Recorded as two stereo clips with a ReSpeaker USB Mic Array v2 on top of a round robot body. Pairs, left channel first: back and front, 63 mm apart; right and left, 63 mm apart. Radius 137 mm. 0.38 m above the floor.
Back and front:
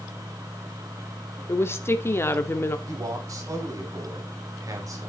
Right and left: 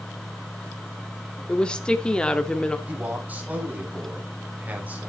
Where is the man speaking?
25° left, 4 m.